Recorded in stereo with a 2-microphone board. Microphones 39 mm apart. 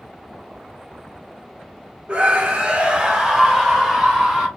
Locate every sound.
2.1 s a scream: 30° right (ahead or behind), 0.8 m; by 4.5 s 5° right (ahead or behind), 1.5 m